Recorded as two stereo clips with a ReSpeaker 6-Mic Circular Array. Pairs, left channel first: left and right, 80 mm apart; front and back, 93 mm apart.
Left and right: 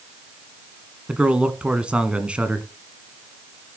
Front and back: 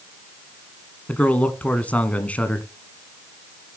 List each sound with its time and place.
1.1 s a man speaking: 40° right, 1.3 m